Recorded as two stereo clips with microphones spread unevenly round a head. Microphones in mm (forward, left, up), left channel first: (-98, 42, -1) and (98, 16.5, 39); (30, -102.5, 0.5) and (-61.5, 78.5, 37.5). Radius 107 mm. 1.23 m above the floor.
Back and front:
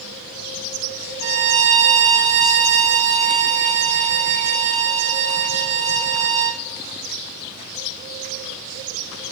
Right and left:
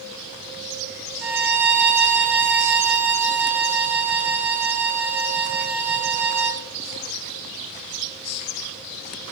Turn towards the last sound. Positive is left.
turn(degrees=40)